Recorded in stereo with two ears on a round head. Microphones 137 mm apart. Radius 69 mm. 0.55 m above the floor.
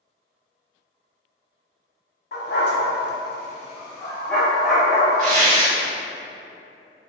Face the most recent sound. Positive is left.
turn(degrees=-60)  # may be behind; listen again after turning